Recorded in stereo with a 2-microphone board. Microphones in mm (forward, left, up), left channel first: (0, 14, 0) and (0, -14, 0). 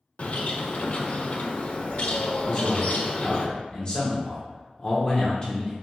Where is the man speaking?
30° left (ahead or behind), 1.0 m.